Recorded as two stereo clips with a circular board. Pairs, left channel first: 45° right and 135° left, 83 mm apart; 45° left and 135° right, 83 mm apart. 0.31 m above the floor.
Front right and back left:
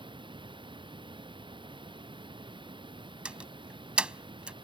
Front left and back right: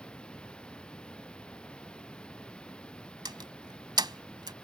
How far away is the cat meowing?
No cat meowing in this recording.